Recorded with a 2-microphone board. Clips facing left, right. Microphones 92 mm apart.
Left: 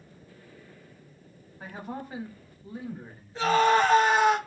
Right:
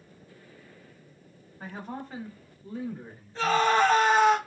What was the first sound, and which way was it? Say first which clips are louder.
A man speaking: even; 5° left (ahead or behind).